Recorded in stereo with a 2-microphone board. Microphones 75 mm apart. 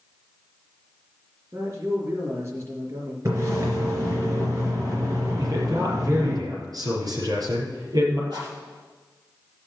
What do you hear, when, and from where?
1.5 s a man speaking: 40° right (ahead or behind), 4 m
3.2 s a splash: 40° right (ahead or behind), 3.5 m
5.4 s a man speaking: 55° right (ahead or behind), 5.5 m
8.3 s a rattle: 65° right (ahead or behind), 6 m